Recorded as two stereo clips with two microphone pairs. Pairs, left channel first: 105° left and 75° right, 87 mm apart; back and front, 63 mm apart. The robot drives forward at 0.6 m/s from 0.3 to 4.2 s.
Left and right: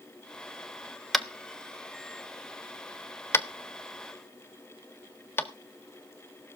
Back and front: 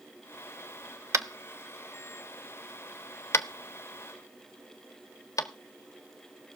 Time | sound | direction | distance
1.1 | tapping | 20° left | 1.0 m